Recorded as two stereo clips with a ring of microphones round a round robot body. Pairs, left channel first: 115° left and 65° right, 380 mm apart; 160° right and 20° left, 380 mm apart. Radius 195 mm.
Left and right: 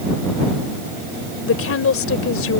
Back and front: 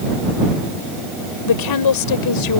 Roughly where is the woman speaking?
Behind.